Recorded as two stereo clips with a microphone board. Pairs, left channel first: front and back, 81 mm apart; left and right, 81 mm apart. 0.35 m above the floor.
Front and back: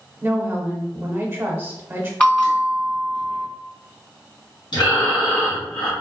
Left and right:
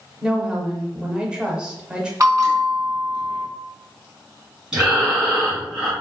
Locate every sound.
0.2 s a woman speaking: 155° right, 0.9 m
2.2 s a bell: 65° right, 1.9 m
4.7 s breathing: 10° right, 2.0 m